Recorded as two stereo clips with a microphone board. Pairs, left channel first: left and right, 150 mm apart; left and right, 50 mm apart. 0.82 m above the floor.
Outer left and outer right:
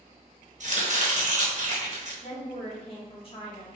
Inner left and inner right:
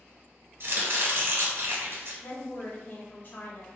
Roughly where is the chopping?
Right.